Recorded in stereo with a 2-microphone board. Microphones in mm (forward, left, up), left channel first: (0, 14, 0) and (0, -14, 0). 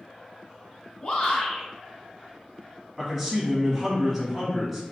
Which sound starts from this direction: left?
A shout, at 1.0 s.